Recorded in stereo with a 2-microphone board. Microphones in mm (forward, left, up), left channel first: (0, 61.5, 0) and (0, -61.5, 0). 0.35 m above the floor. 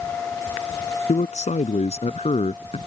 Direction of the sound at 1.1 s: 70° left (ahead or behind).